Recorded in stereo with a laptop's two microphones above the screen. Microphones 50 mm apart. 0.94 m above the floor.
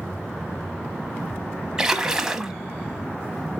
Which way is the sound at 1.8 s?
10° right (ahead or behind).